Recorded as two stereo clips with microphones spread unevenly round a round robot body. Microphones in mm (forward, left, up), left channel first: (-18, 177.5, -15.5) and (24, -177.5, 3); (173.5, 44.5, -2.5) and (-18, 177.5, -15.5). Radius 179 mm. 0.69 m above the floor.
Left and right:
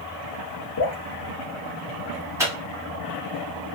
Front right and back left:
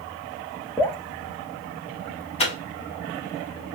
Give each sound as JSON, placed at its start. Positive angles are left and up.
{"t": 0.8, "sound": "dripping", "azimuth_deg": 50, "distance_m": 0.7}
{"t": 2.4, "sound": "a microwave", "azimuth_deg": -5, "distance_m": 0.8}